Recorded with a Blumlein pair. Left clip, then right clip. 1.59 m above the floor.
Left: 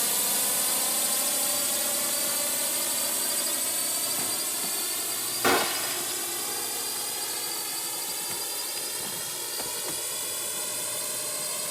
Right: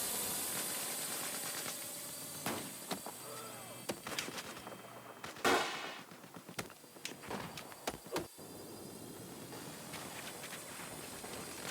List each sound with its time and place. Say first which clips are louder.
0.0 s a drone: left 12 dB; 60° left; by 11.7 s 40° left
5.4 s a gunshot: left 8 dB; 25° left